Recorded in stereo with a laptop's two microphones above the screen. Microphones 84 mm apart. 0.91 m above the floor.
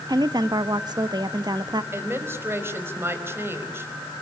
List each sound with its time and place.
0.1 s a woman speaking: 55° right (ahead or behind), 1.2 m
1.9 s a woman speaking: 30° right (ahead or behind), 4.5 m